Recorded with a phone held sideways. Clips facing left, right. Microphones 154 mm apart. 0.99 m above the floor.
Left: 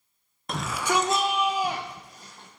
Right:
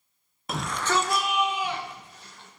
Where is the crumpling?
No crumpling in this recording.